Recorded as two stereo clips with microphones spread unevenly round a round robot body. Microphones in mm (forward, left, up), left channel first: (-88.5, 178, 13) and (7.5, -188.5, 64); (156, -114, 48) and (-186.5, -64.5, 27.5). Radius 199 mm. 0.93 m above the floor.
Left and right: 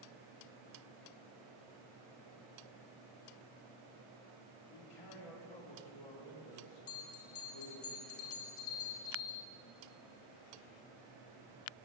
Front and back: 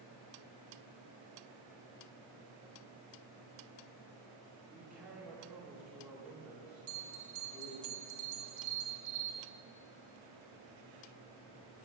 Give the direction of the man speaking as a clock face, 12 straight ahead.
9 o'clock.